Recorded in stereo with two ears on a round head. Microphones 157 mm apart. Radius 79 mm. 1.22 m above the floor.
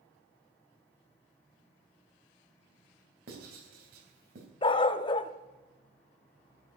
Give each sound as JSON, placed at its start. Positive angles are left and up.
{"t": 3.3, "sound": "writing", "side_deg": -55, "distance_m": 4.0}
{"t": 4.6, "sound": "a dog barking", "side_deg": 30, "distance_m": 0.7}